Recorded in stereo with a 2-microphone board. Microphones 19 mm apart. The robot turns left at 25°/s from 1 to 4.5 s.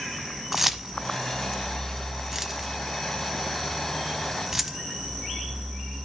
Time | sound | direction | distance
0.5 | keys jangling | 10° right (ahead or behind) | 0.9 m